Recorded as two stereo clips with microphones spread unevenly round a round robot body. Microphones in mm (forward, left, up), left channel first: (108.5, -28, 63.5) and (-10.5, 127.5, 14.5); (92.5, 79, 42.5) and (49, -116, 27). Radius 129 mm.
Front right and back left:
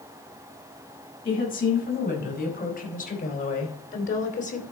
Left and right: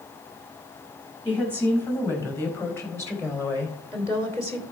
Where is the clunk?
I don't hear a clunk.